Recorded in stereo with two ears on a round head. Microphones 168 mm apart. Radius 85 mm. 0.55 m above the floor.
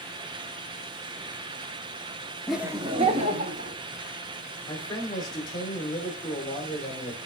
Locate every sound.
2.5 s laughter: centre (ahead or behind), 0.6 m; by 3.8 s 40° right (ahead or behind), 1.7 m
4.7 s a man speaking: 20° left (ahead or behind), 1.7 m